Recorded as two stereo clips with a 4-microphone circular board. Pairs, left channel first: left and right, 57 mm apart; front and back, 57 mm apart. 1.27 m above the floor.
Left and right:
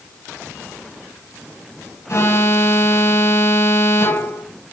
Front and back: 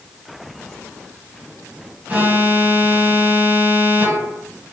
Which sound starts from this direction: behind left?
An alarm, at 2.1 s.